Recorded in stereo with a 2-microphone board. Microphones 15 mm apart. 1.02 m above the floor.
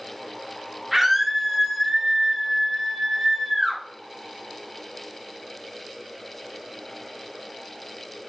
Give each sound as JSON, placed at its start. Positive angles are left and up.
{"t": 0.9, "sound": "a scream", "side_deg": -20, "distance_m": 2.0}